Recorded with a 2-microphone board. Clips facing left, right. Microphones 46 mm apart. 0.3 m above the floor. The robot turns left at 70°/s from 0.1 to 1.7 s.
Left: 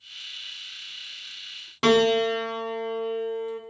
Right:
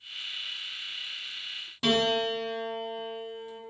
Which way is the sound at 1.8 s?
75° left (ahead or behind).